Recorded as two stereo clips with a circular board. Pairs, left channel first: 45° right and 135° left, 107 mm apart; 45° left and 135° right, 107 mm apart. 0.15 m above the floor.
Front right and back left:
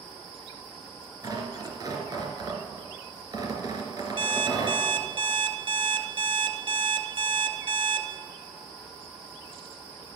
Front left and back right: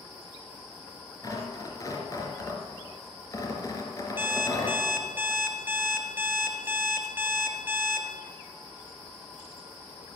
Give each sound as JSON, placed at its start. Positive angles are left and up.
{"t": 1.2, "sound": "tearing paper", "azimuth_deg": 90, "distance_m": 3.0}
{"t": 4.2, "sound": "an alarm clock", "azimuth_deg": 160, "distance_m": 1.2}